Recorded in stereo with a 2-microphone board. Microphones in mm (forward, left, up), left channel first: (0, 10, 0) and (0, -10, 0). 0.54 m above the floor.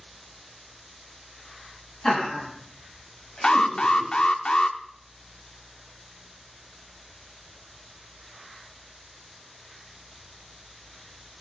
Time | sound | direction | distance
2.0 | laughter | 45° left (ahead or behind) | 5 m
3.4 | an alarm | 50° left (ahead or behind) | 0.6 m